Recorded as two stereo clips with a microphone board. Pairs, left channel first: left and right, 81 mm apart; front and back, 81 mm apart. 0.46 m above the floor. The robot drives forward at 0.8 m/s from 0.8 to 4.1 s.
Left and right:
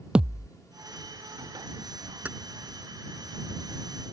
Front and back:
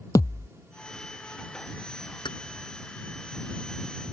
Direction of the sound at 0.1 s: 15° right.